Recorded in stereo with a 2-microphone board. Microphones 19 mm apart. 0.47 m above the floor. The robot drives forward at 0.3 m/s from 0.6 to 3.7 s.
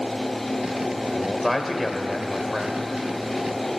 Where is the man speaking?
20° left (ahead or behind), 1.6 m; by 2.9 s 25° left (ahead or behind), 1.2 m.